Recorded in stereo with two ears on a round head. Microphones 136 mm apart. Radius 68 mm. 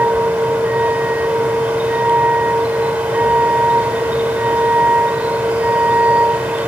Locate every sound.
0.0 s a vehicle: 10° right (ahead or behind)